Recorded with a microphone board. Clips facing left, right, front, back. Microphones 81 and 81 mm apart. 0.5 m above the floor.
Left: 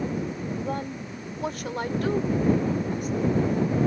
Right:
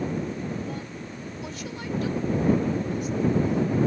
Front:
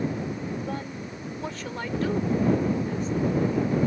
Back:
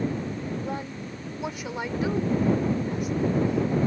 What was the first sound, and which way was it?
A woman speaking, 105° left.